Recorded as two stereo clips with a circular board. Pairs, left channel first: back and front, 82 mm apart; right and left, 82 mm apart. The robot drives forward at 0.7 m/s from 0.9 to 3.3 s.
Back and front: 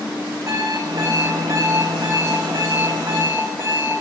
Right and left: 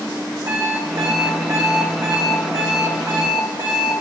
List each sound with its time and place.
0.5 s an alarm clock: 45° left, 5.5 m; by 4.0 s 60° left, 4.5 m